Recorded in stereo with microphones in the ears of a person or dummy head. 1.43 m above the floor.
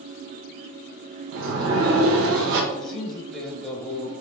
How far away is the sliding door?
About 0.7 m.